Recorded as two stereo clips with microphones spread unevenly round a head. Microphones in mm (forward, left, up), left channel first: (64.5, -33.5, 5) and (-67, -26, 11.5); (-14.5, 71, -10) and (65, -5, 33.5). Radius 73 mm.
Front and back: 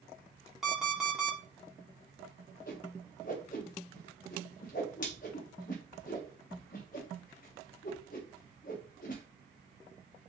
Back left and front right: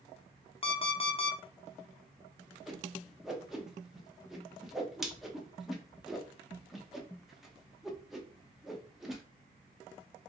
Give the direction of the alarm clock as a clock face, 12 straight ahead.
9 o'clock.